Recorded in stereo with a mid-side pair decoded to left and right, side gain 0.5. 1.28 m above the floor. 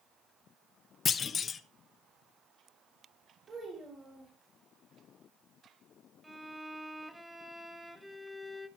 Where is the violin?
10° right, 1.6 m.